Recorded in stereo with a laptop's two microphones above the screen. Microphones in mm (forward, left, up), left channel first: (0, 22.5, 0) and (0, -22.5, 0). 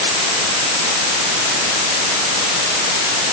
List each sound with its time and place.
Only background noise.